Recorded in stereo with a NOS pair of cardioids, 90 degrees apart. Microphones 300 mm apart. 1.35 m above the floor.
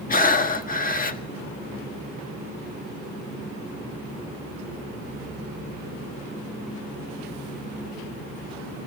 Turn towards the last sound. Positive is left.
turn(degrees=30)